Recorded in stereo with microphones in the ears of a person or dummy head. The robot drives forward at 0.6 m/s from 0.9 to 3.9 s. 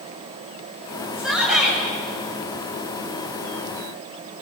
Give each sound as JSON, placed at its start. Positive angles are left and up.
{"t": 1.1, "sound": "a shout", "side_deg": -5, "distance_m": 9.5}